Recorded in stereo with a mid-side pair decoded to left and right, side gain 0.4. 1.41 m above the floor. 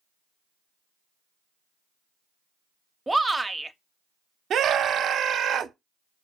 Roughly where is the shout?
Ahead.